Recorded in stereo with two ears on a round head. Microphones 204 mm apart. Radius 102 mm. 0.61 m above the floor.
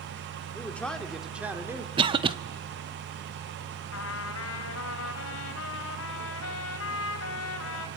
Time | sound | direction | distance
0.6 | a man speaking | 10° left (ahead or behind) | 1.9 m
2.0 | a cough | 20° right (ahead or behind) | 1.0 m
3.9 | a trumpet | 65° left (ahead or behind) | 4 m